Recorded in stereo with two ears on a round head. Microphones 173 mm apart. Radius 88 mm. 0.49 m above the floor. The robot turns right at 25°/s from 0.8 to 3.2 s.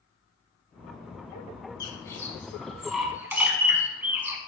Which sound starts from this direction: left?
A bird, at 1.8 s.